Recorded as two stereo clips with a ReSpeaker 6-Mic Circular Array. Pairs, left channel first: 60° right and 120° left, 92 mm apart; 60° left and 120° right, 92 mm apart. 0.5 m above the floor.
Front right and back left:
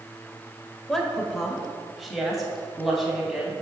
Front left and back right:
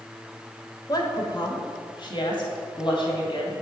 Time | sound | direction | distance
0.9 | a woman speaking | 25° left | 1.5 m